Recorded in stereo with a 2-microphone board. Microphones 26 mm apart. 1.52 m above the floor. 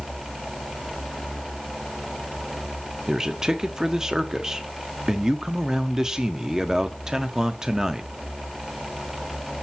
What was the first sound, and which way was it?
A man speaking, 25° right (ahead or behind).